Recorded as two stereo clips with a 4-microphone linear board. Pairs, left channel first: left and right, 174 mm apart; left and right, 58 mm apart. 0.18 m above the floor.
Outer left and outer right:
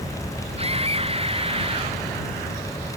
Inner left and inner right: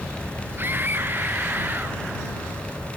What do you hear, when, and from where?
0.6 s a scream: 35° right (ahead or behind); by 2.0 s 30° right (ahead or behind)